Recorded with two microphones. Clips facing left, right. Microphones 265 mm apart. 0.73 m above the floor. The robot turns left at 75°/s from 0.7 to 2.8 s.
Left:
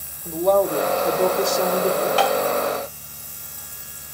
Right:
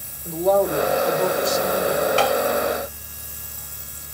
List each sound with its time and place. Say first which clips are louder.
0.2 s a woman speaking: even; 175° right, 1.8 m; by 2.1 s 80° left, 1.8 m
2.2 s tapping: even; 25° right (ahead or behind), 0.9 m; by 2.4 s 40° right (ahead or behind), 0.9 m